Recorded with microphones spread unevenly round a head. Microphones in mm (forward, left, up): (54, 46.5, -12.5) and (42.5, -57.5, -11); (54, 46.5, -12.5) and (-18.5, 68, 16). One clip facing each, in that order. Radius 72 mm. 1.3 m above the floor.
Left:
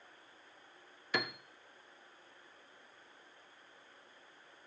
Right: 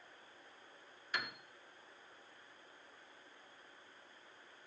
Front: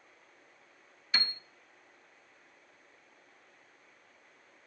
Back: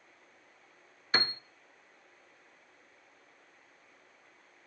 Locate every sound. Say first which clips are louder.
1.1 s a piano: left 6 dB, back 5 dB; 105° left, 0.7 m